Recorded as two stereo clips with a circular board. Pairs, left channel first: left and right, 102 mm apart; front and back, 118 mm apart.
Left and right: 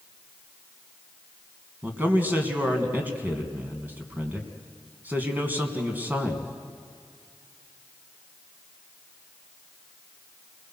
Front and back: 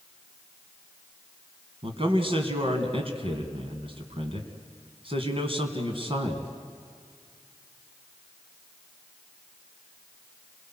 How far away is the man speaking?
About 3 m.